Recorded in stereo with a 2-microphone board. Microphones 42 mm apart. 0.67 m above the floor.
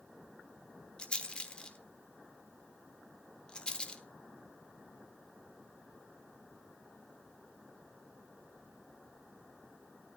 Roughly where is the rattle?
Left.